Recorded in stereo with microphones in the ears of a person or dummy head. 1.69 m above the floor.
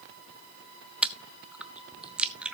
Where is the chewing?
10° right (ahead or behind), 0.8 m.